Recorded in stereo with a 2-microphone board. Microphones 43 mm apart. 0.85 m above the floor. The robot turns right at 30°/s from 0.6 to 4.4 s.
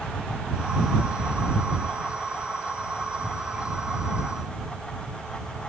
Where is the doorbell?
No doorbell in this recording.